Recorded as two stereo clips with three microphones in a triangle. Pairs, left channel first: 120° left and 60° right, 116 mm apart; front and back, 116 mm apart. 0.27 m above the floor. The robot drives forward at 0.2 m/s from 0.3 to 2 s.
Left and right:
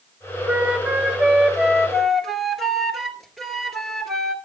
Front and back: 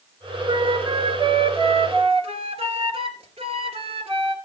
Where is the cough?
I don't hear a cough.